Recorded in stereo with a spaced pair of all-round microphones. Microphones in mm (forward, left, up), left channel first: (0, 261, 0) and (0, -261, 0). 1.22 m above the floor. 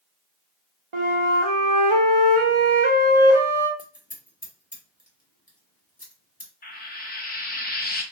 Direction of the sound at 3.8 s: 15° left (ahead or behind).